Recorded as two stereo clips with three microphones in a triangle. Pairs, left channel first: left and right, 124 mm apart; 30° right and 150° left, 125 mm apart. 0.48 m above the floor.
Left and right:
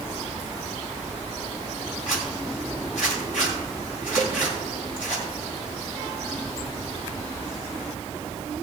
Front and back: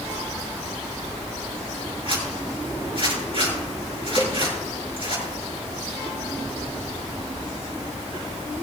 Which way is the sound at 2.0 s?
105° left.